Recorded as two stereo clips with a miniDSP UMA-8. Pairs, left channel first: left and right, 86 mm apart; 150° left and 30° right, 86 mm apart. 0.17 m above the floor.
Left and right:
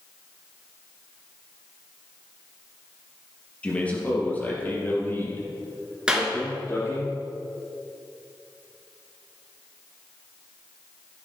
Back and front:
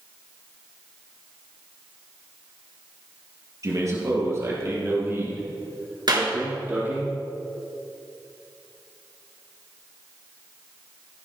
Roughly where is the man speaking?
Ahead.